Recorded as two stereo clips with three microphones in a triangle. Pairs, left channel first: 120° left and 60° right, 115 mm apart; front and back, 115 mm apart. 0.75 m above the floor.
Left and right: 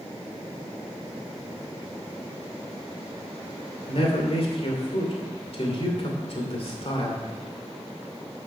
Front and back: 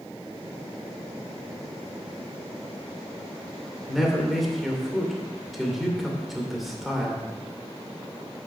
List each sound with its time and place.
3.9 s a man speaking: 90° left, 2 m